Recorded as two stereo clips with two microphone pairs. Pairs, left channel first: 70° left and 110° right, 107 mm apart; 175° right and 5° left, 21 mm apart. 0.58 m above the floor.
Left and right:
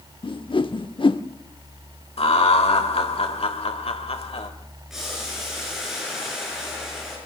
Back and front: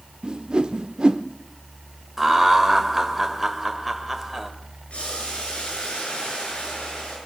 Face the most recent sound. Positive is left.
turn(degrees=165)